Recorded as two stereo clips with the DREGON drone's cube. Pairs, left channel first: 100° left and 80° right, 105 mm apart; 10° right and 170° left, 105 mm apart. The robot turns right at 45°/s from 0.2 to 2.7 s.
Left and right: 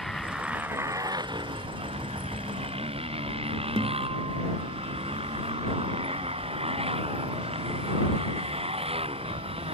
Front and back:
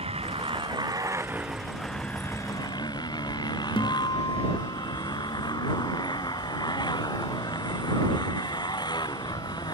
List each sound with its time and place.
0.0 s a motorcycle: 170° right; by 9.7 s 60° right
3.8 s a guitar: 45° right